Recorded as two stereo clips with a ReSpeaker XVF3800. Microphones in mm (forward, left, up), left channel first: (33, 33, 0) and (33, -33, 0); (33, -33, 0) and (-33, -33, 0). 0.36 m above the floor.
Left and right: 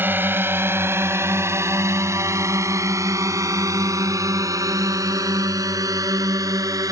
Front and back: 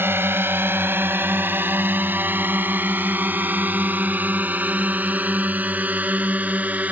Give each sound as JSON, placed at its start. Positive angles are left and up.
{"t": 0.0, "sound": "a drone", "azimuth_deg": -140}